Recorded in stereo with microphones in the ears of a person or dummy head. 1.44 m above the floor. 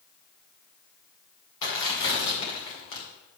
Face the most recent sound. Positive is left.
turn(degrees=60)  # may be behind; listen again after turning